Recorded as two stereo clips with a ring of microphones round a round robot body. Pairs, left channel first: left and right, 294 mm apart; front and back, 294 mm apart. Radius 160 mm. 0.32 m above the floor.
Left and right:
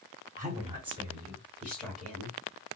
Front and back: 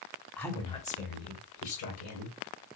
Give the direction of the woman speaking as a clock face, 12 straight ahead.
3 o'clock.